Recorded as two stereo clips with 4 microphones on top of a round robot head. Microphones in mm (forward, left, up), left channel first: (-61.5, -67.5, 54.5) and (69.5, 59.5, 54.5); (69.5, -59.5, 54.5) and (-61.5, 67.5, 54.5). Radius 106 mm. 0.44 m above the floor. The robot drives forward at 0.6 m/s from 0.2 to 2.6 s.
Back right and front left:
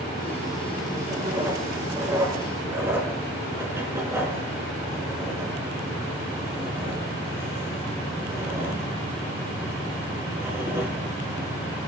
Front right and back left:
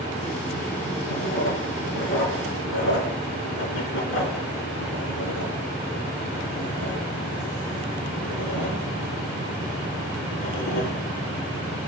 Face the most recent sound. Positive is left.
turn(degrees=-35)